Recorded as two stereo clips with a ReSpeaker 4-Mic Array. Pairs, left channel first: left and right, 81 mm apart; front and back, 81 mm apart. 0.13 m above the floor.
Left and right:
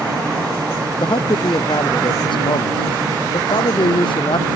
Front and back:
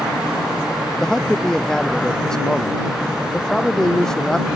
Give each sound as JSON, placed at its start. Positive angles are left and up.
{"t": 1.0, "sound": "a man speaking", "azimuth_deg": 85}